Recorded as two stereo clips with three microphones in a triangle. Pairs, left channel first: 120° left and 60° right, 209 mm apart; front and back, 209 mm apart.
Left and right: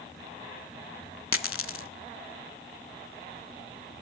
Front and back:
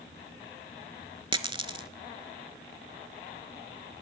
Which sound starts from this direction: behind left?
A dropped coin, at 1.3 s.